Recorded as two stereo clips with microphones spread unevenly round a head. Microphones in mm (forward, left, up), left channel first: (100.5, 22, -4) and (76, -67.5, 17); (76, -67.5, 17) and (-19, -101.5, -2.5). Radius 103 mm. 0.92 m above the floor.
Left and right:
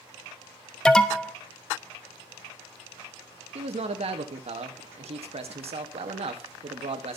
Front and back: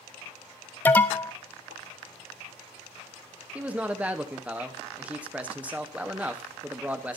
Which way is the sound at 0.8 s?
95° left.